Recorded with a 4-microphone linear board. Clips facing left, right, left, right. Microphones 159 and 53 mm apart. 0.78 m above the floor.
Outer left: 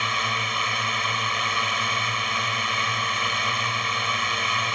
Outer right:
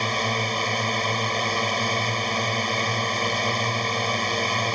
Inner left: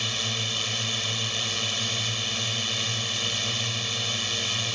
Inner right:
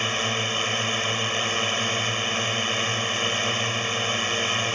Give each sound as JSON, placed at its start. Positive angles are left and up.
{"t": 0.0, "sound": "a drone", "side_deg": -35}